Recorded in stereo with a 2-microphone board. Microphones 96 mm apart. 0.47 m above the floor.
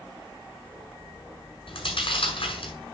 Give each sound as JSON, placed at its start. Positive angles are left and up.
{"t": 1.7, "sound": "chewing", "side_deg": 65, "distance_m": 6.0}